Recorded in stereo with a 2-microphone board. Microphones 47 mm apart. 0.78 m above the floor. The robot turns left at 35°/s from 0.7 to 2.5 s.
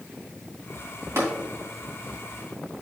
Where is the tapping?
75° right (ahead or behind), 2.5 m.